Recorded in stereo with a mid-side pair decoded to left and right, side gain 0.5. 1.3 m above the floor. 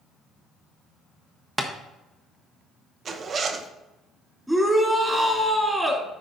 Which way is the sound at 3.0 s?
45° right.